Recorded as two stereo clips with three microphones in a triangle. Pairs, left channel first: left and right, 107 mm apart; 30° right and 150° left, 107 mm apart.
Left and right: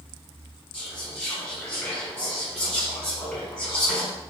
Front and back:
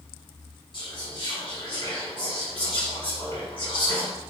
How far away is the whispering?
About 1.5 m.